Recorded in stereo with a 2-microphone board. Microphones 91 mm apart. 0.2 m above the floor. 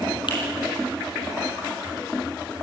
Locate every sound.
0.3 s a finger snap: 60° left (ahead or behind), 7 m